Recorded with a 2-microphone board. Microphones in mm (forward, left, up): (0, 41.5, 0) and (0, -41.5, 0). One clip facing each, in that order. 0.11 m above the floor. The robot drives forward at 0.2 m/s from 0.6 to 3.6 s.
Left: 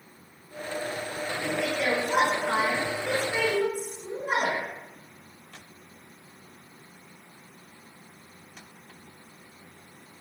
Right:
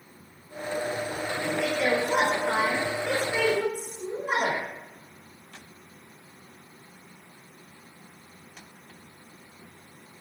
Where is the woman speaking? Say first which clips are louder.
Right 2 dB; 10° left (ahead or behind), 1.6 m; by 4.6 s 5° left (ahead or behind), 1.8 m.